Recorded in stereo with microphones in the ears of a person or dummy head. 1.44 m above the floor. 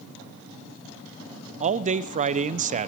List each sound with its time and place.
1.6 s a man speaking: 40° right (ahead or behind), 0.6 m